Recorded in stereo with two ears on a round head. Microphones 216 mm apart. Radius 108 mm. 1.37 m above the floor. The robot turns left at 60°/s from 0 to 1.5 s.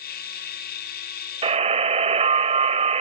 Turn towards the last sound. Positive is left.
turn(degrees=-25)  # may be behind; listen again after turning